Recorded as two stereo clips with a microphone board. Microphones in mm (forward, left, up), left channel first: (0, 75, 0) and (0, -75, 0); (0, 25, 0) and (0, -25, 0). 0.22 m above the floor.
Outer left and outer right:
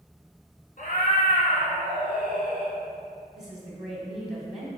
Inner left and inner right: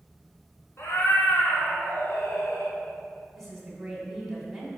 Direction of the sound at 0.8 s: 65° left (ahead or behind).